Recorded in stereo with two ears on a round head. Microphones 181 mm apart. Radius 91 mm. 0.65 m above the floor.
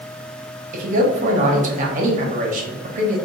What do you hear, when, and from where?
0.7 s a man speaking: 40° right (ahead or behind), 1.0 m